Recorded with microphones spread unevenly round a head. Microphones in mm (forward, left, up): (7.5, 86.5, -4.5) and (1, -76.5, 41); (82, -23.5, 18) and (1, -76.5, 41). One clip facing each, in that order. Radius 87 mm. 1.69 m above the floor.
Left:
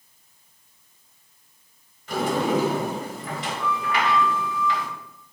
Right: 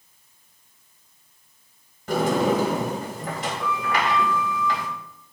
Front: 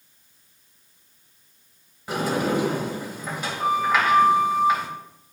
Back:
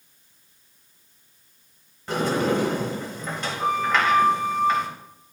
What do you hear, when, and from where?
2.1 s a sliding door: 55° right, 3.5 m